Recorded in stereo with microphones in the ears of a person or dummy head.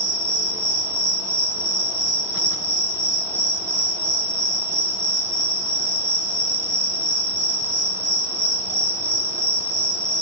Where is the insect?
10° right (ahead or behind), 1.2 m.